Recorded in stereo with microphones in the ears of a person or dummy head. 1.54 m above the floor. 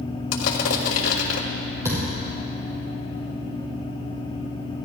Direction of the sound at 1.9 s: 10° right (ahead or behind).